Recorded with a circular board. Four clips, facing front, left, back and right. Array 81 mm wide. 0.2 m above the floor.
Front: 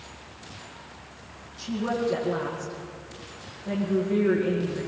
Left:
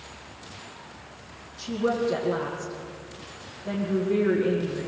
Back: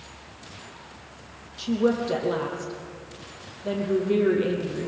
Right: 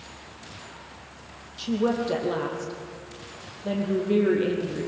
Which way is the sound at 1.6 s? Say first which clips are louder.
Right 1 dB, back 4 dB; 140° right.